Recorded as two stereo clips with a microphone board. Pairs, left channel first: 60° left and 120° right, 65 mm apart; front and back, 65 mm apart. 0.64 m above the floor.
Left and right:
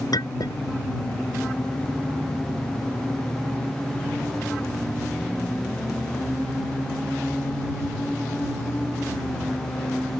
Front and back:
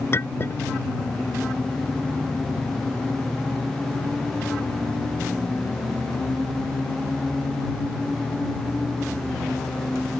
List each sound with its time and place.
0.1 s a clink: 50° left